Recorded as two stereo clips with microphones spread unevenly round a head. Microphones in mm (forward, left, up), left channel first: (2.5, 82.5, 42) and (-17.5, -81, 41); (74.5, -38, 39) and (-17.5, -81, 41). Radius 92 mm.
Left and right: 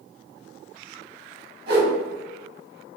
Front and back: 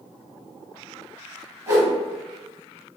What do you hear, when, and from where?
1.7 s a whoosh: 100° right, 1.2 m